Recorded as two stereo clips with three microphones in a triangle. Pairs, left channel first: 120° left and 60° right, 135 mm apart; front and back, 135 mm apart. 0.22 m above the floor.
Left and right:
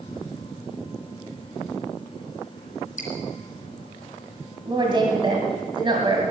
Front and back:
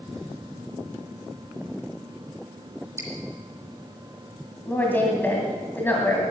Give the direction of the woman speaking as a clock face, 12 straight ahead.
2 o'clock.